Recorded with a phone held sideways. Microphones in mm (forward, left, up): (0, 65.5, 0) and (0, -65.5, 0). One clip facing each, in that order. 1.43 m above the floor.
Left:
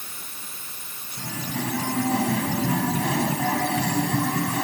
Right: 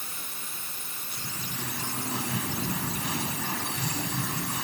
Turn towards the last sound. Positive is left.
turn(degrees=85)